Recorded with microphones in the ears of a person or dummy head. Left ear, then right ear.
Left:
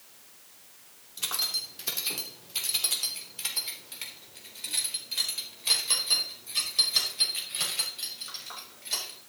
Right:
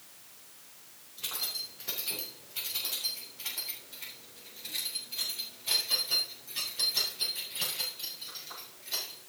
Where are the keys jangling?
80° left, 3 m; by 9.2 s 50° left (ahead or behind), 6.5 m.